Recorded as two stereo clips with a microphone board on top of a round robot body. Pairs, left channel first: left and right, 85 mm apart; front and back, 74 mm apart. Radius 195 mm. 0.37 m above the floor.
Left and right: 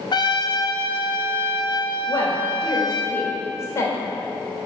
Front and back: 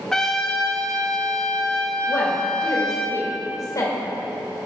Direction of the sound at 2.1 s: 35° left.